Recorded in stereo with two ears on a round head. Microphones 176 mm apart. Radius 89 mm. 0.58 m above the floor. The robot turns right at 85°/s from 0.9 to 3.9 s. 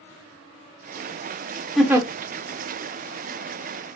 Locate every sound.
1.8 s a giggle: centre (ahead or behind), 0.6 m; by 2.1 s 25° right (ahead or behind), 0.6 m